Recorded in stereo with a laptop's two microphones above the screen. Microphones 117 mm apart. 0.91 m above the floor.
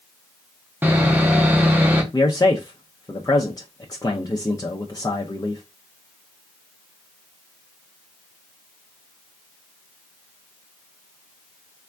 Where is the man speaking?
30° left (ahead or behind), 0.5 m.